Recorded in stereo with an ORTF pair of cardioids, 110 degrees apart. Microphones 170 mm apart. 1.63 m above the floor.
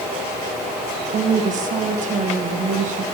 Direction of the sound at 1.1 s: 45° right.